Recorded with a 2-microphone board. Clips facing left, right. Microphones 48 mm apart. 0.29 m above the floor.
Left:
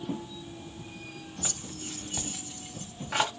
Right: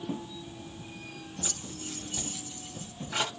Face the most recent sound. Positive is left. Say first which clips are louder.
# left 1 dB
turn(degrees=55)  # may be behind; listen again after turning